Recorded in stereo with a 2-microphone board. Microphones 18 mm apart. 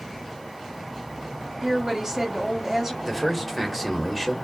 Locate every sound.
1.6 s a woman speaking: 20° right (ahead or behind), 1.4 m
3.0 s a man speaking: 5° left (ahead or behind), 1.6 m